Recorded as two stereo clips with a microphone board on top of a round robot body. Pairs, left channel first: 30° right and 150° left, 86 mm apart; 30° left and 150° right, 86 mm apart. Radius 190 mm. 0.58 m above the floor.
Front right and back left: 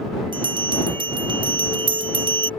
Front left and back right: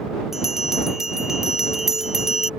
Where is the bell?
125° left.